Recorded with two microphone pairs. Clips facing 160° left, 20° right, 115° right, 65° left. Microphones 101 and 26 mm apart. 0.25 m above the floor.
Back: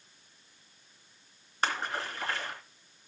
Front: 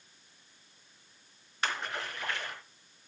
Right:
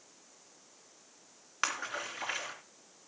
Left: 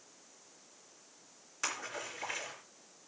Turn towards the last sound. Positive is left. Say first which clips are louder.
# back 3 dB, right 4 dB
turn(degrees=-150)